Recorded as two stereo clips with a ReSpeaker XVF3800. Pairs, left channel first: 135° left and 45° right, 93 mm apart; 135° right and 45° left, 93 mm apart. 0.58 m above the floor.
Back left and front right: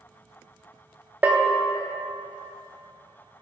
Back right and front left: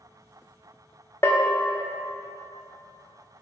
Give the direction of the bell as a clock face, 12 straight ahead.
3 o'clock.